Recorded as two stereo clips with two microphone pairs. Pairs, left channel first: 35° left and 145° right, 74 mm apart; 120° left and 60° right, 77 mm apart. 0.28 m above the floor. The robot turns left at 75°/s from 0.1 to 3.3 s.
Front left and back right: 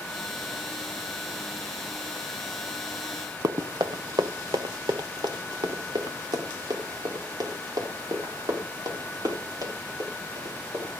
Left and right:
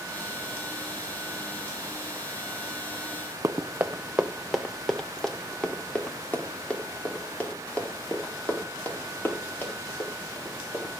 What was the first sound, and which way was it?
Running footsteps, 110° right.